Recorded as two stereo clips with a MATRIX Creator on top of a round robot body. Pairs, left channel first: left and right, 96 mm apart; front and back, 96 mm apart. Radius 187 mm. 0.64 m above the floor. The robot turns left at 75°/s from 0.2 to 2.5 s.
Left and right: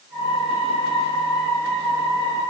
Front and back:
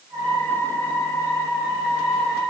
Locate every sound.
Only background noise.